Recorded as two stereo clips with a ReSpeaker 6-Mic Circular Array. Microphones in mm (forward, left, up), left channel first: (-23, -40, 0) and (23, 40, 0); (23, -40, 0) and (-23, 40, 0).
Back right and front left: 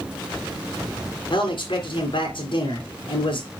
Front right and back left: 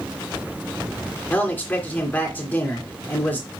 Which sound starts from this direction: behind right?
A man speaking, at 1.3 s.